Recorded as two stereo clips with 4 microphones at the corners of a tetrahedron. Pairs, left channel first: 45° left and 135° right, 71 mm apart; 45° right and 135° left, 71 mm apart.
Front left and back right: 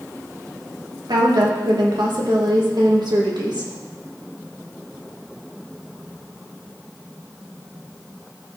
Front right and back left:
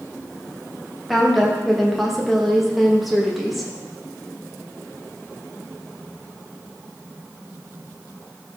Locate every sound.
1.1 s a woman speaking: 135° right, 2.5 m